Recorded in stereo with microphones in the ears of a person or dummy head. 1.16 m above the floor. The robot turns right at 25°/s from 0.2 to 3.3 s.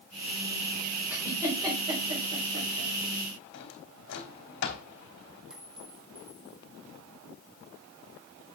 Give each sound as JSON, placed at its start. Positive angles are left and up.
{"t": 1.1, "sound": "a giggle", "side_deg": -5, "distance_m": 4.0}
{"t": 3.5, "sound": "a drawer", "side_deg": 70, "distance_m": 2.5}
{"t": 5.5, "sound": "a clink", "side_deg": 0, "distance_m": 1.2}